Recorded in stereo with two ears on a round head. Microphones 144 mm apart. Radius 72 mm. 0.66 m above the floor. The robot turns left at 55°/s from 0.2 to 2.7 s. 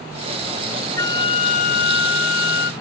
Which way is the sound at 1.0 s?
160° left.